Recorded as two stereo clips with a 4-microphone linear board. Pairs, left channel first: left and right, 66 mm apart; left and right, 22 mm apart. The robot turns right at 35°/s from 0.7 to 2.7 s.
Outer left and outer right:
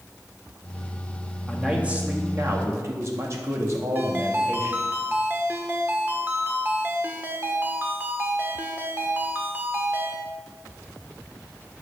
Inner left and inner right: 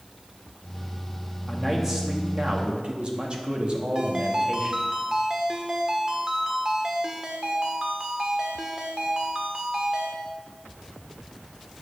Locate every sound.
1.5 s a man speaking: 175° right, 1.9 m; by 4.8 s 130° right, 1.9 m
4.0 s a ringtone: 30° right (ahead or behind), 1.6 m